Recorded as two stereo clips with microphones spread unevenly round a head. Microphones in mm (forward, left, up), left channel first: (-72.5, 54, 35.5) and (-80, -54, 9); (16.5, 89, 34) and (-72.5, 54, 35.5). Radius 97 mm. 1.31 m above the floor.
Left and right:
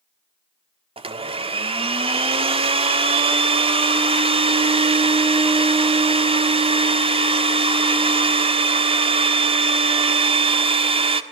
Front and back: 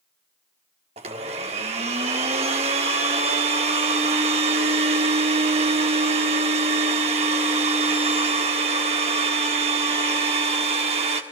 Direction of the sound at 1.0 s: 130° right.